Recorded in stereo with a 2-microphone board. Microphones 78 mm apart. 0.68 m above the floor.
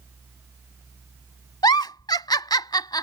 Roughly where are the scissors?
I don't hear scissors.